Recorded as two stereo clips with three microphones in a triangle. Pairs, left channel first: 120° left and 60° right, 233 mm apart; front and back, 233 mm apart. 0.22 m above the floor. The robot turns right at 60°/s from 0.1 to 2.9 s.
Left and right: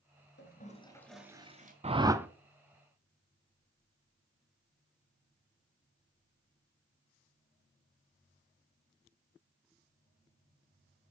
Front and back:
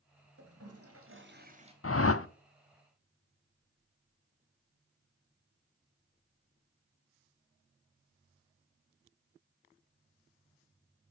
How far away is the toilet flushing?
About 1.6 m.